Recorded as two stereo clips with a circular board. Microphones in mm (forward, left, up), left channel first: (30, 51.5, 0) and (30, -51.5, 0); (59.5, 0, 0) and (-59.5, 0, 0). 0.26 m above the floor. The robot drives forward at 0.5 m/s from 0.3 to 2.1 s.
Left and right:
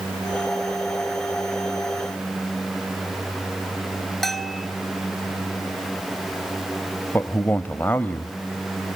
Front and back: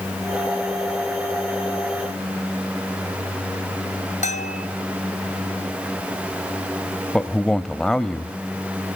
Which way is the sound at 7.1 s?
75° left.